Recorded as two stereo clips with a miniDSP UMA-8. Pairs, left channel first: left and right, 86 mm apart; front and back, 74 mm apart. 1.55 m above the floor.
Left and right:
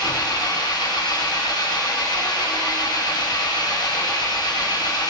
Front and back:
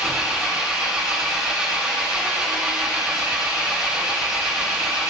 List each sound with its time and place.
0.0 s an engine running: 100° left, 0.9 m